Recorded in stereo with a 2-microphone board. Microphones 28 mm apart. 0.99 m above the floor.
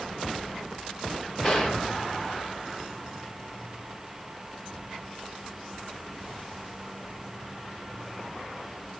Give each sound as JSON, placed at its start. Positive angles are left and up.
{"t": 1.4, "sound": "a gunshot", "side_deg": 25, "distance_m": 1.2}